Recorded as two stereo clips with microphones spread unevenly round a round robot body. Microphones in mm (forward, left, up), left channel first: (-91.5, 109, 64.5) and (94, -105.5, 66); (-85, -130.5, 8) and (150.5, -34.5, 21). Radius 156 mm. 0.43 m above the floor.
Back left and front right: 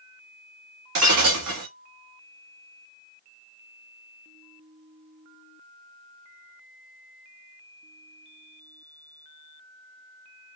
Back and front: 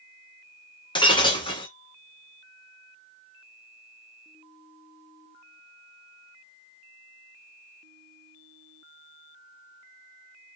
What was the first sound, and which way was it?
Breaking glass, 85° right.